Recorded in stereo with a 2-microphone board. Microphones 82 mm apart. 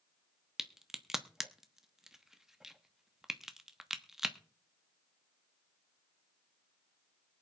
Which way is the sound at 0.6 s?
5° right (ahead or behind).